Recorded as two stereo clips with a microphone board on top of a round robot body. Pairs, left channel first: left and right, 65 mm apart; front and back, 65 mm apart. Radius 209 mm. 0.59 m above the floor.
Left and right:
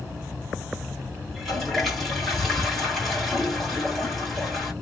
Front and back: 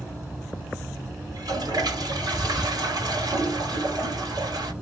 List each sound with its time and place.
1.3 s a toilet flushing: straight behind, 2.0 m